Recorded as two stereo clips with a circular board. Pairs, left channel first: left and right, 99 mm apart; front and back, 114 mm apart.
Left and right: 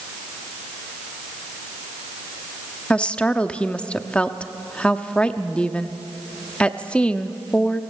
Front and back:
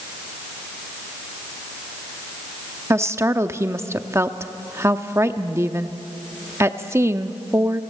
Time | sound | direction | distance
2.9 | a woman speaking | 155° left | 0.7 m